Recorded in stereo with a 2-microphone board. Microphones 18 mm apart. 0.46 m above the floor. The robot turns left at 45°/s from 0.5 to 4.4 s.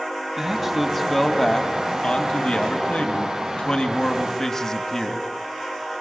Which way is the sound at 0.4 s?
160° right.